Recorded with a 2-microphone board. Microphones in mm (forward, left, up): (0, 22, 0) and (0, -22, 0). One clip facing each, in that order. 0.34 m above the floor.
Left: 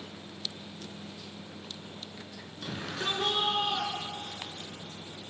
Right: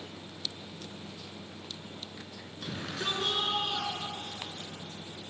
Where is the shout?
5° right (ahead or behind), 5 m; by 4.7 s 20° left (ahead or behind), 6 m.